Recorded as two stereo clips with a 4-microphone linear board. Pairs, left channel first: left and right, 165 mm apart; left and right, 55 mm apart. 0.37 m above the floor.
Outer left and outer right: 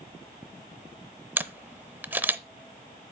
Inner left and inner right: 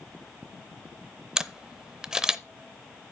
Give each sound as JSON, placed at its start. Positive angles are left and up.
{"t": 1.4, "sound": "a camera shutter", "side_deg": -10, "distance_m": 0.5}